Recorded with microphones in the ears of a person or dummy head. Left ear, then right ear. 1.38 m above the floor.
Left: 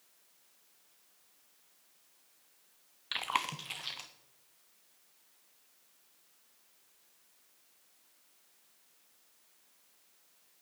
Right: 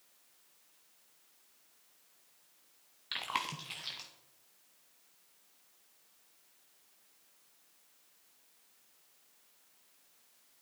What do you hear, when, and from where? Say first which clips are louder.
3.1 s chewing: left 3 dB; 15° left (ahead or behind), 0.6 m